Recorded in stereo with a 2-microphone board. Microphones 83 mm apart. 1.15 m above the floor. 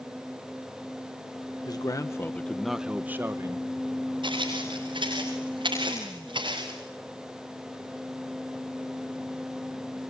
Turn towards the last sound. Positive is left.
turn(degrees=-75)  # may be behind; listen again after turning